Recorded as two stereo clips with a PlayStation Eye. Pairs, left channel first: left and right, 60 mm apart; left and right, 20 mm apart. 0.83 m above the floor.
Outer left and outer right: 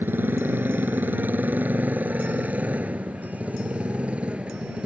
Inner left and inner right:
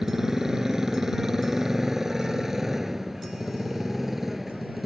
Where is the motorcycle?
35° right (ahead or behind); by 4.8 s 20° right (ahead or behind).